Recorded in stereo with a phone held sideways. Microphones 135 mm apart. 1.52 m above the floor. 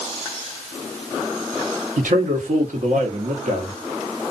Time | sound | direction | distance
2.0 | a man speaking | 75° right (ahead or behind) | 1.0 m